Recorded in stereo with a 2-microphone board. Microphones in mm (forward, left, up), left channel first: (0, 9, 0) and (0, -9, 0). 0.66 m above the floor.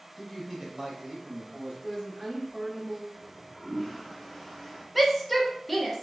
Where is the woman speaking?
10° left (ahead or behind), 1.2 m.